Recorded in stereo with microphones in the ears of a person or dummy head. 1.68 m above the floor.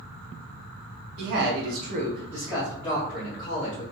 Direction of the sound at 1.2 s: 60° right (ahead or behind).